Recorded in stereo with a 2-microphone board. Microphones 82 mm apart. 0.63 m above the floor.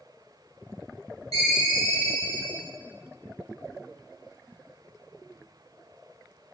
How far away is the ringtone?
About 0.9 m.